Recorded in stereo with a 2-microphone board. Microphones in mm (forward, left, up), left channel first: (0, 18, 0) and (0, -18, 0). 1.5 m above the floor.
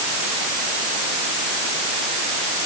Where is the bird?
I don't hear a bird.